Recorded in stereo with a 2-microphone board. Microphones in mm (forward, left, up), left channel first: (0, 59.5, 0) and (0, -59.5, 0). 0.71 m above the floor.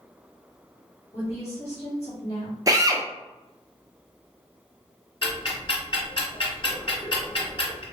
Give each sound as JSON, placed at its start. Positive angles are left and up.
{"t": 1.1, "sound": "a woman speaking", "side_deg": 55, "distance_m": 1.9}
{"t": 2.7, "sound": "a drill", "side_deg": -30, "distance_m": 0.5}
{"t": 5.2, "sound": "ticking", "side_deg": 45, "distance_m": 1.4}